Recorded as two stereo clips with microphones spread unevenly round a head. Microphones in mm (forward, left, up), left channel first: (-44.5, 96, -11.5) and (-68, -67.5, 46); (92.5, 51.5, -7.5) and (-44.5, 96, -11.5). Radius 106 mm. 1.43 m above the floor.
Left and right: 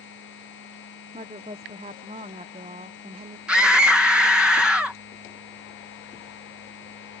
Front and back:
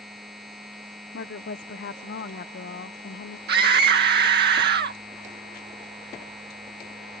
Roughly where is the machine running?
Left.